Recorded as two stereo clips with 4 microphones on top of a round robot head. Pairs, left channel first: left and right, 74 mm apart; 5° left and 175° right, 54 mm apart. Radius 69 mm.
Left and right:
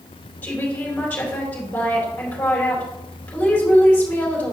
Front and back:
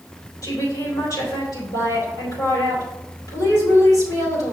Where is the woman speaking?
20° left, 3.5 m.